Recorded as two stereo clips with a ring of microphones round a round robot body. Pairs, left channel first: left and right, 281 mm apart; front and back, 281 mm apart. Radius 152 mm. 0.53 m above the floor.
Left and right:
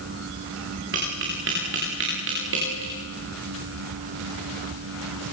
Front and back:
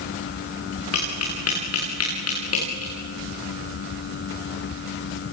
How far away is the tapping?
About 9.5 m.